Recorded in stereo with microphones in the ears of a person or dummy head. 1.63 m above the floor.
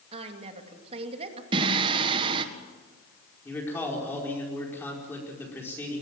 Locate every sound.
0.1 s a woman speaking: 30° right (ahead or behind), 2.5 m
1.5 s singing: 25° right (ahead or behind), 1.6 m
3.5 s a man speaking: 20° left (ahead or behind), 5 m